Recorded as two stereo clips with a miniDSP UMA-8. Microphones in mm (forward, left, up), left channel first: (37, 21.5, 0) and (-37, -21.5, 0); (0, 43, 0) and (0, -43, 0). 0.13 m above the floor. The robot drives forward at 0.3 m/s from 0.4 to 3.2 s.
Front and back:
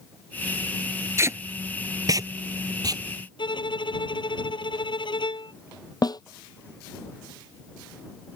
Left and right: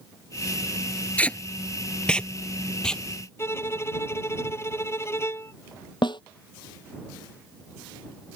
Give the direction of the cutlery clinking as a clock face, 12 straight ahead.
I don't hear cutlery clinking.